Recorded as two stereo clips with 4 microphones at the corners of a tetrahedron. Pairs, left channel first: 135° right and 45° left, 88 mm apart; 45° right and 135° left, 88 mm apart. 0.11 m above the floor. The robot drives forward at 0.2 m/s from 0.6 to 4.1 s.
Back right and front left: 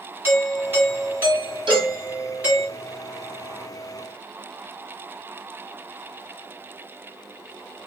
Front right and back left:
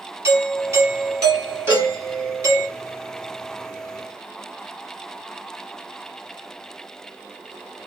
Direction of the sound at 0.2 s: 95° left.